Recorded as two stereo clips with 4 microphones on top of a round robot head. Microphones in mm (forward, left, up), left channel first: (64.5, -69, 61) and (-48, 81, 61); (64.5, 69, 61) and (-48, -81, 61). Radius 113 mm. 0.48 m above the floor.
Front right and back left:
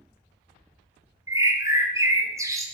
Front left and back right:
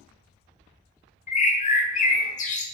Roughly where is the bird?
Ahead left.